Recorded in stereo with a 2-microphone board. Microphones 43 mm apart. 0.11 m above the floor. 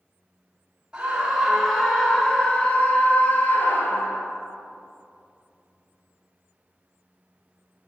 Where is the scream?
20° right (ahead or behind), 1.4 m; by 4.2 s 60° left (ahead or behind), 2 m.